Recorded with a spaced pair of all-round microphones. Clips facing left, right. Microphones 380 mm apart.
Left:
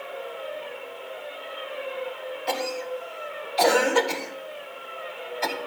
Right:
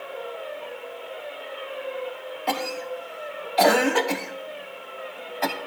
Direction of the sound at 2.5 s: 70° right (ahead or behind).